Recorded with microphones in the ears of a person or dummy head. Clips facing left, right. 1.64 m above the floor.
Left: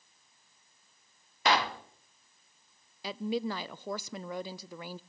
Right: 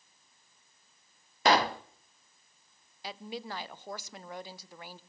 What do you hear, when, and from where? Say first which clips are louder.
1.4 s a pop: right 3 dB; 40° right (ahead or behind), 0.8 m
3.0 s a woman speaking: left 8 dB; 70° left (ahead or behind), 0.6 m